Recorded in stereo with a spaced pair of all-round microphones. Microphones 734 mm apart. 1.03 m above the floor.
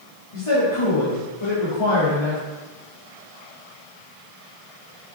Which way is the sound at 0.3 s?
50° left (ahead or behind).